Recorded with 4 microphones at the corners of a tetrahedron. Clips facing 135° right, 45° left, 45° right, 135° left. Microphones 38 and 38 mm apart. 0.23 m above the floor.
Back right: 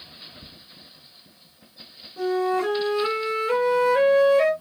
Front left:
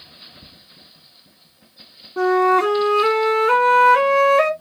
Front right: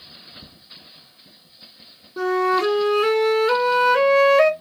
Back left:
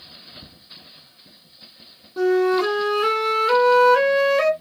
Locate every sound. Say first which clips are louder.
2.2 s a flute: front left 8 dB, back left 1 dB; 45° left, 1.3 m